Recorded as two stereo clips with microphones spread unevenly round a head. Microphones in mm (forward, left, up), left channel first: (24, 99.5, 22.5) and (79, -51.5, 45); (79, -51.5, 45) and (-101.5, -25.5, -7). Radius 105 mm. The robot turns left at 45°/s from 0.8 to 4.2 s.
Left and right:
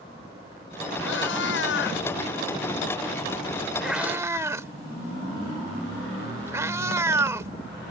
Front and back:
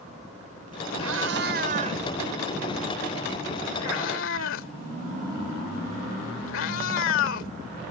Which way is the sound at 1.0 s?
145° left.